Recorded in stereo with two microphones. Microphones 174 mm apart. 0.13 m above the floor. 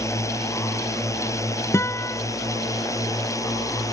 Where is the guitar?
15° left (ahead or behind).